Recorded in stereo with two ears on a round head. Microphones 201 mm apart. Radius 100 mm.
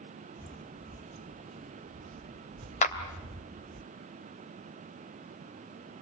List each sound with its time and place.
0.4 s footsteps: 15° left (ahead or behind), 0.7 m; by 3.8 s 55° right (ahead or behind), 2 m
2.8 s a clap: 35° left (ahead or behind), 2.5 m